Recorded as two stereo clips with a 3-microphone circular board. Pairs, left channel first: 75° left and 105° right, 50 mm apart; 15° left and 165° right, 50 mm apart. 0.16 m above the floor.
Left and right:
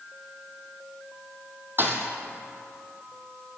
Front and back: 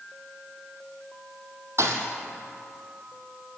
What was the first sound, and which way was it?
A thud, 150° right.